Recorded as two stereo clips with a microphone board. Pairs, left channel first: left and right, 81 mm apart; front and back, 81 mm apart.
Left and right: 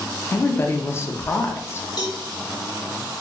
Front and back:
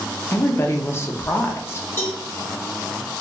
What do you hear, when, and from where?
0.3 s a woman speaking: 45° left, 0.6 m
2.0 s a cowbell: 60° left, 1.1 m